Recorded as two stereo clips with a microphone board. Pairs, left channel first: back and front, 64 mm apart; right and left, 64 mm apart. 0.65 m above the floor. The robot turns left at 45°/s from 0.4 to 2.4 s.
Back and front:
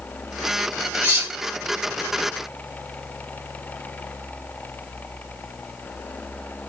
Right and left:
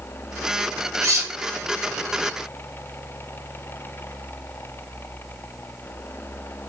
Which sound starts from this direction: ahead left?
Cutlery clinking, at 1.0 s.